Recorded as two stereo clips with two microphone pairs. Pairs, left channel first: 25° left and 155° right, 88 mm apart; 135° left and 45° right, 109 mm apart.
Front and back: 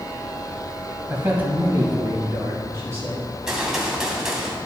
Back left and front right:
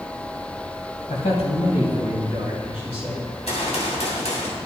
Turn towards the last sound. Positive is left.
turn(degrees=125)